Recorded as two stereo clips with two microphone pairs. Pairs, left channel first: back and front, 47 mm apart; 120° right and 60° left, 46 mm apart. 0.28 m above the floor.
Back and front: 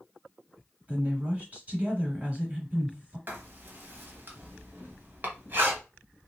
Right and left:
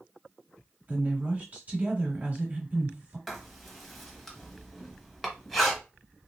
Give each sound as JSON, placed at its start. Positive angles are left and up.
{"t": 0.9, "sound": "a woman speaking", "azimuth_deg": 40, "distance_m": 1.5}
{"t": 3.3, "sound": "writing", "azimuth_deg": -30, "distance_m": 1.0}